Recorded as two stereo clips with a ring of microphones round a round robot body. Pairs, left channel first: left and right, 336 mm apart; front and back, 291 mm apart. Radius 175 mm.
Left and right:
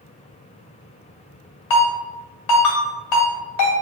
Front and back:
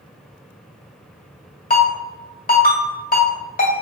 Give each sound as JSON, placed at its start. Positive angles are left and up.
{"t": 1.7, "sound": "a ringtone", "azimuth_deg": 65, "distance_m": 1.8}